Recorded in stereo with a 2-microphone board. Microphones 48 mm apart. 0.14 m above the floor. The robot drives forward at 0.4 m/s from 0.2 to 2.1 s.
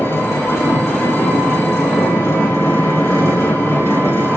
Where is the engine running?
70° left (ahead or behind), 4 m.